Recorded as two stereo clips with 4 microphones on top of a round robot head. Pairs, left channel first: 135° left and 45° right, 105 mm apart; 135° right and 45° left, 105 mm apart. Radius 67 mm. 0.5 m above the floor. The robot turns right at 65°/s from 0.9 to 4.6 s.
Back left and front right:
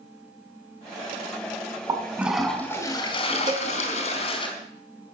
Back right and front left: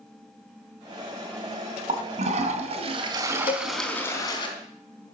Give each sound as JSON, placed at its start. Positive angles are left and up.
{"t": 1.9, "sound": "a toilet flushing", "azimuth_deg": 10, "distance_m": 3.0}
{"t": 3.5, "sound": "a cowbell", "azimuth_deg": -95, "distance_m": 0.8}